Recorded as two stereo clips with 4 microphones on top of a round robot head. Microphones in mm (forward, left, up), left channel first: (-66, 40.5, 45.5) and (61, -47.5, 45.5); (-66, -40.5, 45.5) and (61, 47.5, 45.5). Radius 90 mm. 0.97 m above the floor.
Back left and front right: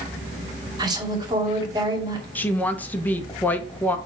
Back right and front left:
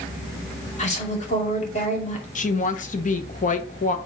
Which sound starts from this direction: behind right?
A woman speaking, at 2.4 s.